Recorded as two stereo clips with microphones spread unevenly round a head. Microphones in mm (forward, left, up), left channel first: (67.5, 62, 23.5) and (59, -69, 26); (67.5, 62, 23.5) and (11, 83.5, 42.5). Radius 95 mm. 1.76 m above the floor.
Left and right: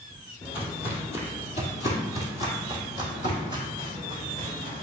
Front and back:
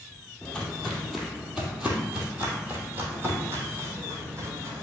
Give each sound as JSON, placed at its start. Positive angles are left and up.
{"t": 0.4, "sound": "footsteps", "azimuth_deg": 65, "distance_m": 2.0}